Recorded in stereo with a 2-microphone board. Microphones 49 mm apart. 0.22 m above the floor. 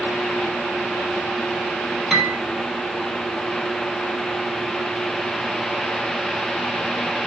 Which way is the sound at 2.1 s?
5° right (ahead or behind).